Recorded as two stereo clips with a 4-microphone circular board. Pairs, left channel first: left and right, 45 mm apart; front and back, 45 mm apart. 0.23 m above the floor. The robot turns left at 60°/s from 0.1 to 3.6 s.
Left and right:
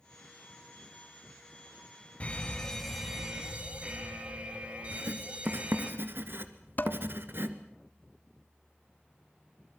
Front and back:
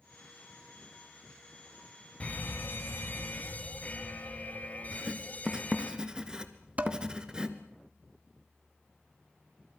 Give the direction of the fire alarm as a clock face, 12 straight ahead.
11 o'clock.